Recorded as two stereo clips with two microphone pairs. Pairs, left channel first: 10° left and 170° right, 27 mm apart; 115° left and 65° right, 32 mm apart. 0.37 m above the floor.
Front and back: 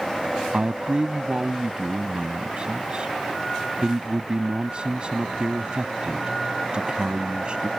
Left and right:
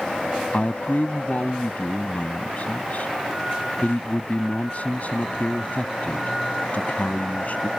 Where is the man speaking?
145° left.